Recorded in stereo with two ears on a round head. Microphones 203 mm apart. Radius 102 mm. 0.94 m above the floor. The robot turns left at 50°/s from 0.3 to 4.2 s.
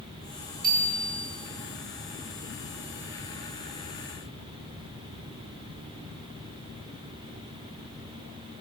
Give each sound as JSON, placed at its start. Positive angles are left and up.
{"t": 0.6, "sound": "a bicycle bell", "side_deg": -40, "distance_m": 6.0}